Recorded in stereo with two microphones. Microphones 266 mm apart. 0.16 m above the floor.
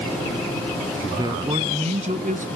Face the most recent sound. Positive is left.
turn(degrees=-30)  # may be behind; listen again after turning